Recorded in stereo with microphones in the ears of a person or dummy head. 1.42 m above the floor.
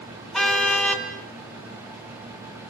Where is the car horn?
5° left (ahead or behind), 4 m.